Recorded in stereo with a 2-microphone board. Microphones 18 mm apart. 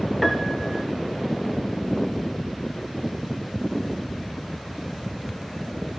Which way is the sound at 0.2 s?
10° left (ahead or behind).